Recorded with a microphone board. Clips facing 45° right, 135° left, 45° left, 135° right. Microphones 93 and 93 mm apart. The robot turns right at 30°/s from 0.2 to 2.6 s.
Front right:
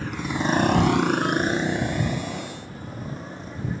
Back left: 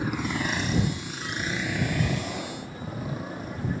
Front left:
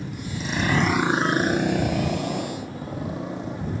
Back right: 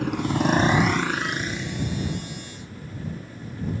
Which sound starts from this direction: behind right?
A motorcycle, at 0.0 s.